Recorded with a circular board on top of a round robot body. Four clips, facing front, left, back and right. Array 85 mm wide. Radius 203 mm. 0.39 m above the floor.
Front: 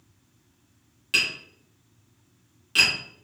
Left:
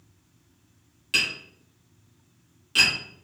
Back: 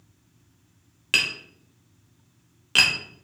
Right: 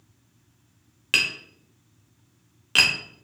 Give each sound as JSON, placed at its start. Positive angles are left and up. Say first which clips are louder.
{"t": 1.1, "sound": "tapping", "louder": "right 2 dB, back 1 dB", "azimuth_deg": -130, "distance_m": 0.8}